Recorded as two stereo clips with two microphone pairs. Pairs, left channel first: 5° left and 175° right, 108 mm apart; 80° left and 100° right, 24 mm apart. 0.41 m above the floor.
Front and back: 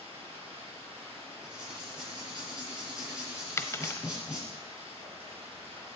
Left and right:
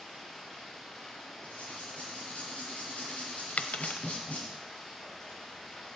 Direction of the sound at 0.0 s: 155° left.